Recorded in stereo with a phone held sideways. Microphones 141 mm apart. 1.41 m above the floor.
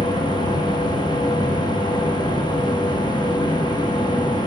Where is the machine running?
30° left (ahead or behind), 1.3 m.